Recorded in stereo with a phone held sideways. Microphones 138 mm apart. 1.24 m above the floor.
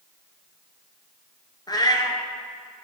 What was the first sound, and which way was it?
A cat meowing, 30° left (ahead or behind).